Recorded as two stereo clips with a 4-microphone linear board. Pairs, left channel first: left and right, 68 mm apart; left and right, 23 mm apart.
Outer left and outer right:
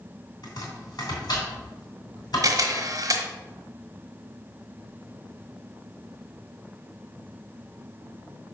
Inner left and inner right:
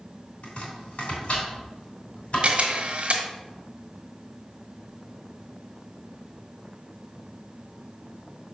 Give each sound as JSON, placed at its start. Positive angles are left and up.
{"t": 0.4, "sound": "chopping", "side_deg": 70, "distance_m": 2.5}
{"t": 2.4, "sound": "a camera shutter", "side_deg": -55, "distance_m": 1.1}